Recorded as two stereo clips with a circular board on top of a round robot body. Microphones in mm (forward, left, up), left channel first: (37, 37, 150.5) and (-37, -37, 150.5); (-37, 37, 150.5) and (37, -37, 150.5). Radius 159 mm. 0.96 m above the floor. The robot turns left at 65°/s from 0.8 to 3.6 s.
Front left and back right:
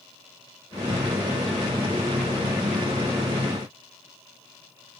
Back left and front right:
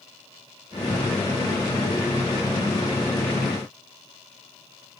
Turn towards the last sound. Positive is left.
No sound to turn to.